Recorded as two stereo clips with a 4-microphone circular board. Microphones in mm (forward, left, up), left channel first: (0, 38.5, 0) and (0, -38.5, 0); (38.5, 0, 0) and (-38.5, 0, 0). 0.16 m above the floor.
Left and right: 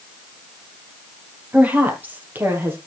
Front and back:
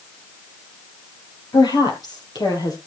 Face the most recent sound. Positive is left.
turn(degrees=-30)